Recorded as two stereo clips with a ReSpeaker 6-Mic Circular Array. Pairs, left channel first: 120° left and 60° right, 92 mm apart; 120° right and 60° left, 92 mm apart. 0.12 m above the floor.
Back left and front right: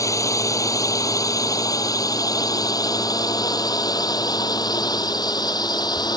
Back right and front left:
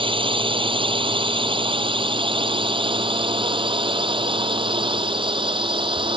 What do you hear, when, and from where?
0.0 s a drone: 70° left; by 6.2 s 80° left